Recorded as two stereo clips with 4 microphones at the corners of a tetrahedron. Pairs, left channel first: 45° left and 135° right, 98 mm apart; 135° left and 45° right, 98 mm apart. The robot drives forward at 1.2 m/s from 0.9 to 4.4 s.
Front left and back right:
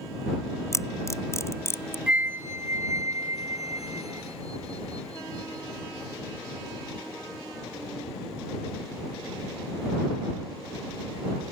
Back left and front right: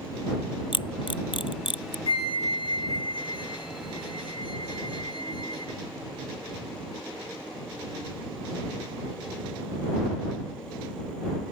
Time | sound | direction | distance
0.7 | a camera shutter | 105° left | ?
2.1 | a flute | 145° left | ?